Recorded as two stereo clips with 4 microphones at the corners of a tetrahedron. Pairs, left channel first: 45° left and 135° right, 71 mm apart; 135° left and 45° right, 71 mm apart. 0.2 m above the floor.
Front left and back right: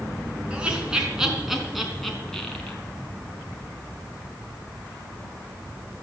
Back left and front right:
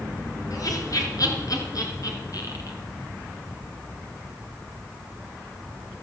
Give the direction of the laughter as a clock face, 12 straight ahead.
7 o'clock.